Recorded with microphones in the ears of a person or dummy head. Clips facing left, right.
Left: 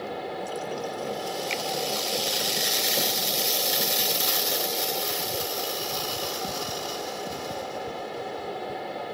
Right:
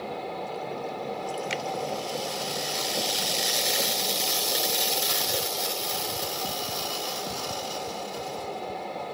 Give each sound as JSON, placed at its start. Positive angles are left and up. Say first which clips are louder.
{"t": 0.0, "sound": "a fan", "louder": "left 1 dB", "side_deg": 5}
{"t": 1.5, "sound": "a finger snap", "louder": "even", "side_deg": -15}